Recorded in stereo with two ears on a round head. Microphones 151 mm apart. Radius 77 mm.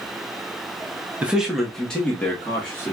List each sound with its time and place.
1.2 s a man speaking: 10° right (ahead or behind), 0.6 m; by 2.9 s 15° left (ahead or behind), 1.5 m